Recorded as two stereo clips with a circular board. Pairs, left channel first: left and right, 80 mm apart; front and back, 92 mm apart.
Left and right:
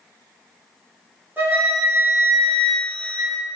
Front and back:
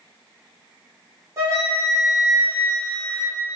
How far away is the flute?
About 0.7 m.